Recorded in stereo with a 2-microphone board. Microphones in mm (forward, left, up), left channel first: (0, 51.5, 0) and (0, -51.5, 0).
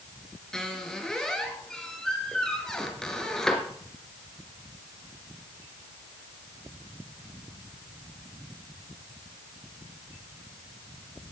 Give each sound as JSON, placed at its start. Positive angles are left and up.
{"t": 0.5, "sound": "a squeak", "side_deg": 5, "distance_m": 3.0}